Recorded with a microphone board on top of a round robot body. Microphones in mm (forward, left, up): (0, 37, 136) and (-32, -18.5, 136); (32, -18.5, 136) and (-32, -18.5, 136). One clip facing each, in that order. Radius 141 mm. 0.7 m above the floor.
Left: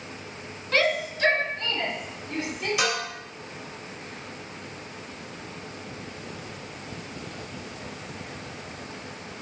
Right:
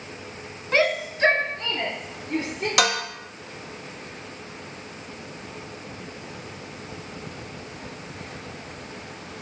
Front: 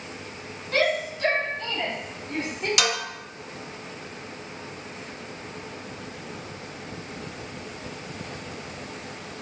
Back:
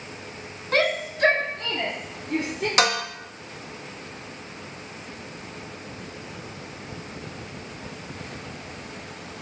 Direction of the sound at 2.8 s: 130° right.